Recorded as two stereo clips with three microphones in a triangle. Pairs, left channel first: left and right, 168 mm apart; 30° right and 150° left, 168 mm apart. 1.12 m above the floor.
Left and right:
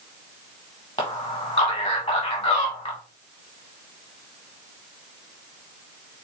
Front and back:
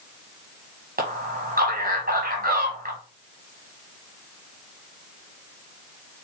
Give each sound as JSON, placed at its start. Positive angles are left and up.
{"t": 1.0, "sound": "a man speaking", "azimuth_deg": 150, "distance_m": 1.1}